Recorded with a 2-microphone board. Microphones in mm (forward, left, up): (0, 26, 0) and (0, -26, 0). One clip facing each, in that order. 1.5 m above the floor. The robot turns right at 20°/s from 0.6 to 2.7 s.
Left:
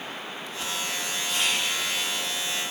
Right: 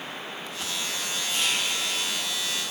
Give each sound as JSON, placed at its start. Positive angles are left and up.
{"t": 1.3, "sound": "whispering", "side_deg": 60, "distance_m": 0.8}